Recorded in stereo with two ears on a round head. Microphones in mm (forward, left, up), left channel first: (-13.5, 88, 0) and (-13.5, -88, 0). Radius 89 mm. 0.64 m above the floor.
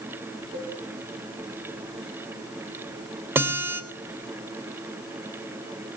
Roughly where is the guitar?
Centre.